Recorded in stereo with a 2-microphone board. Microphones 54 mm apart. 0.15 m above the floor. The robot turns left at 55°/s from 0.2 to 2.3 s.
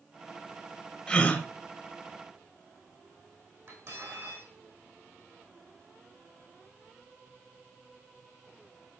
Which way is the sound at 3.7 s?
55° right (ahead or behind).